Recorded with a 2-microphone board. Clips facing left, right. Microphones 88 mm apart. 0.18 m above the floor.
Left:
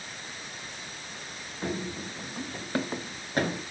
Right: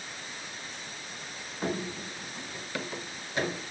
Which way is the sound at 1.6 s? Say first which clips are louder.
Even; 15° right (ahead or behind).